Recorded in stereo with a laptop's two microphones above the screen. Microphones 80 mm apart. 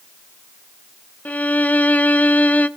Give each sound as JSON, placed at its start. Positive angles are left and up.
{"t": 1.2, "sound": "a violin", "side_deg": 20, "distance_m": 0.6}